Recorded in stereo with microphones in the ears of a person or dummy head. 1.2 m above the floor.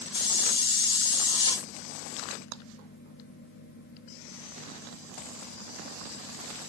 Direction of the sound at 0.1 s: 25° left (ahead or behind).